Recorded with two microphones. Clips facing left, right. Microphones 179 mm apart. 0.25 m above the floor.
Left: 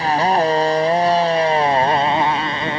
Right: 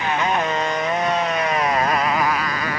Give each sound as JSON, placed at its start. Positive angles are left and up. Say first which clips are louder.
{"t": 0.0, "sound": "a motorcycle", "louder": "left 5 dB", "side_deg": 35}